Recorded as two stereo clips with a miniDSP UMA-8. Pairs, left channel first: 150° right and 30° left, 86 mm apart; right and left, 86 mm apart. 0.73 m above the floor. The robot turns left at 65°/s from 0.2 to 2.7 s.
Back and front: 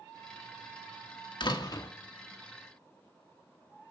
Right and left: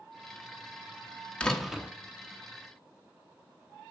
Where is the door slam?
165° right, 1.2 m; by 1.9 s 160° left, 1.2 m.